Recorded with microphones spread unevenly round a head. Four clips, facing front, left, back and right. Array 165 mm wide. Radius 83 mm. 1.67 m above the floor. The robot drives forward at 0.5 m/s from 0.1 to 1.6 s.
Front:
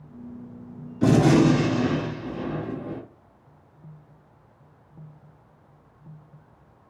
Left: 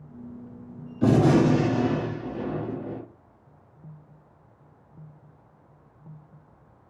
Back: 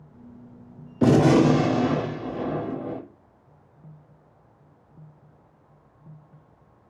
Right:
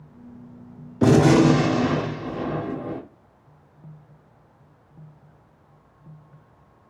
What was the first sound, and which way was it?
A gunshot, 135° right.